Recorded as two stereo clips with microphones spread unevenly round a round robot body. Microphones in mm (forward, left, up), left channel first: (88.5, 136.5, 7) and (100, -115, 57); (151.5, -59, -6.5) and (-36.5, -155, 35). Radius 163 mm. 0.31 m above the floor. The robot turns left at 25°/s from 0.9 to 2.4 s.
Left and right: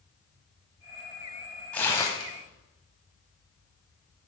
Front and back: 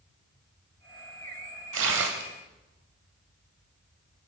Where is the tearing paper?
170° left, 0.5 m; by 2.3 s 155° left, 0.5 m.